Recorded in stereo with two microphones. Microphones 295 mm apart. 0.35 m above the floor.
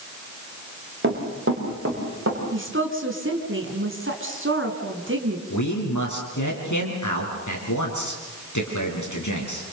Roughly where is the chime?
I don't hear a chime.